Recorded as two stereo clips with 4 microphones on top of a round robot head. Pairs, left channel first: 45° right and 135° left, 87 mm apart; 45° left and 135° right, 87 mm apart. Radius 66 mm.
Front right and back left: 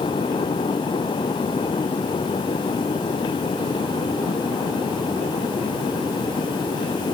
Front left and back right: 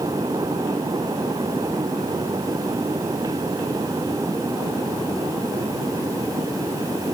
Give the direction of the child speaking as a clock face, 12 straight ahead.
I don't hear a child speaking.